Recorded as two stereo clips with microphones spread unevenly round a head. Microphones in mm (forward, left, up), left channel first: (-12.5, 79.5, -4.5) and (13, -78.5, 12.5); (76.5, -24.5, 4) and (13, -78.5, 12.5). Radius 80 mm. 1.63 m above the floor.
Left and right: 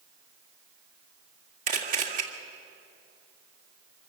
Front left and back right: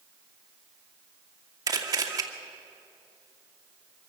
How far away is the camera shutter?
About 2.0 m.